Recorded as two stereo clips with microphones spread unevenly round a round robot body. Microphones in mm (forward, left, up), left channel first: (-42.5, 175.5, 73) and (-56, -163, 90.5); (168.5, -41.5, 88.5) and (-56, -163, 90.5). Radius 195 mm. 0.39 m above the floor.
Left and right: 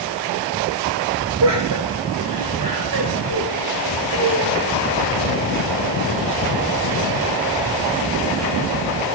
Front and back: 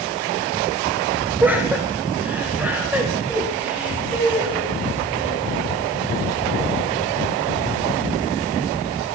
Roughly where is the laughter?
Right.